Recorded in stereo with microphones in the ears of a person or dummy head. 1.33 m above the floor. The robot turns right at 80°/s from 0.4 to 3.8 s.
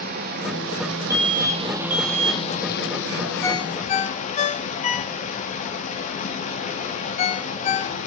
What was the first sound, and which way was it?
Running water, 125° right.